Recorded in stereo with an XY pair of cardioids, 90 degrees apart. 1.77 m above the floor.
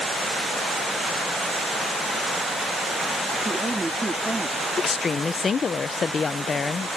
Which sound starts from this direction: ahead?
A man speaking, at 3.5 s.